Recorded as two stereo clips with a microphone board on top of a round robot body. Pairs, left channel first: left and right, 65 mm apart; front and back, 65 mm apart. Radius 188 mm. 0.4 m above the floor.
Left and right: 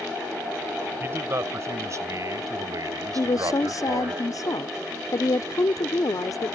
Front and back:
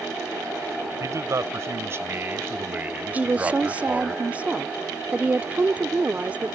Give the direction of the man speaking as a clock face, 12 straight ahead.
5 o'clock.